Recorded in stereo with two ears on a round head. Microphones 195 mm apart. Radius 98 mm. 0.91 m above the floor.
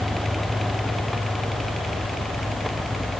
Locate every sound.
Only background noise.